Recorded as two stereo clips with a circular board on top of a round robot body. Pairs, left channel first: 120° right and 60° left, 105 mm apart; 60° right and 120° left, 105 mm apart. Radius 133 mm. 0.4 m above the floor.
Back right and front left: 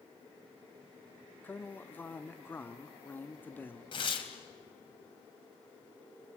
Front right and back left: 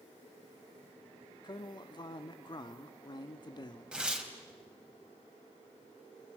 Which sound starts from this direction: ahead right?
A man speaking, at 1.4 s.